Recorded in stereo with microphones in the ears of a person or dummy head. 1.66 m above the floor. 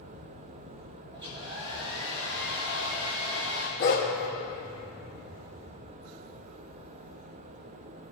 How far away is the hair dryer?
About 1.4 m.